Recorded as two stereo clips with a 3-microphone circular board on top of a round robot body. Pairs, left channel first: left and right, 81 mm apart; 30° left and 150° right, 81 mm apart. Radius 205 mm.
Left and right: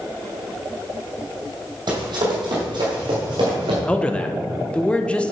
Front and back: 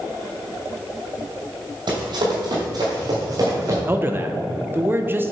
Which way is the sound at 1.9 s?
120° right.